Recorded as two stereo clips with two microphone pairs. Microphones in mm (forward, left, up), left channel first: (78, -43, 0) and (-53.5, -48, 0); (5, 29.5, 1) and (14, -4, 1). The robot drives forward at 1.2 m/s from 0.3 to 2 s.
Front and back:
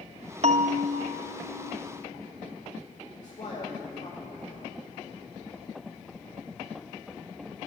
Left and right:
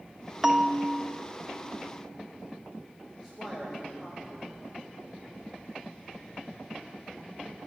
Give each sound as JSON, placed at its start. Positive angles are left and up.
{"t": 0.4, "sound": "a bell", "azimuth_deg": -155, "distance_m": 0.6}
{"t": 3.2, "sound": "a man speaking", "azimuth_deg": 15, "distance_m": 2.0}